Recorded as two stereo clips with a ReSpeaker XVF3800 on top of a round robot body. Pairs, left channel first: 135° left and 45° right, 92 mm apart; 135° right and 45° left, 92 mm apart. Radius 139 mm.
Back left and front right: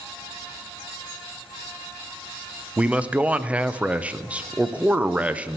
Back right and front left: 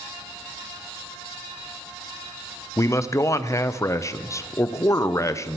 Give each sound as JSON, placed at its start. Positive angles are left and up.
{"t": 2.8, "sound": "a man speaking", "azimuth_deg": -110, "distance_m": 0.6}